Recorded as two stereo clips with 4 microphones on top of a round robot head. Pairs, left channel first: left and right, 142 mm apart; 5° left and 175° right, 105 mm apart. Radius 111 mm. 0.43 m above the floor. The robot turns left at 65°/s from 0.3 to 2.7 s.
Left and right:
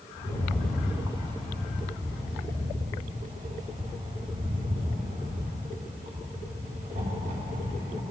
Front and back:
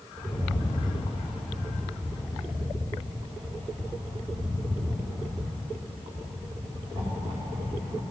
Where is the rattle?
25° left, 4.5 m; by 8.0 s 130° right, 4.5 m.